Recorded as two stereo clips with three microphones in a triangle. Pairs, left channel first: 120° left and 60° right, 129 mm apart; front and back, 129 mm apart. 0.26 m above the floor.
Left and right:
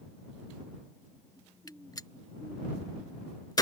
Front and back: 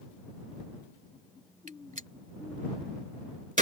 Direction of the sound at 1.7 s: Straight behind.